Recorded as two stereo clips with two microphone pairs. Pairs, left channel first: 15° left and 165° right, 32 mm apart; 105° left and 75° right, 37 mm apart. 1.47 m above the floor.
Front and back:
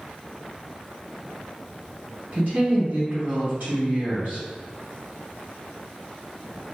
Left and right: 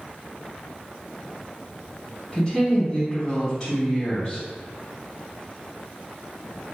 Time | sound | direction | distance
2.3 | a woman speaking | 170° left | 1.8 m